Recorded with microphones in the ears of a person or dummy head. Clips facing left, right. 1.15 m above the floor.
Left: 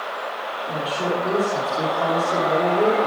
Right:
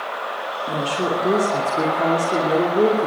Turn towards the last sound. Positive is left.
turn(degrees=-35)  # may be behind; listen again after turning